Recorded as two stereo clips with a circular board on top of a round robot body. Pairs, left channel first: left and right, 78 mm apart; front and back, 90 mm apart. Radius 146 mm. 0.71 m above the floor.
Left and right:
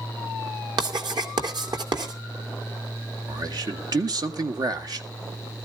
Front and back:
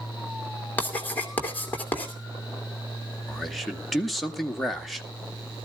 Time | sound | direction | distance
0.8 | writing | 70° right | 2.5 m
3.3 | a man speaking | 90° right | 1.8 m